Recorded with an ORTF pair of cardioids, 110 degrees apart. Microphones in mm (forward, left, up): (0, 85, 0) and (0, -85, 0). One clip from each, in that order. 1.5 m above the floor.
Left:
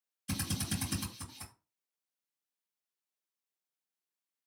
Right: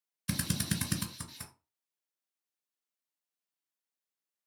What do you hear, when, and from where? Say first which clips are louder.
0.3 s a drill: right 2 dB; 60° right, 1.7 m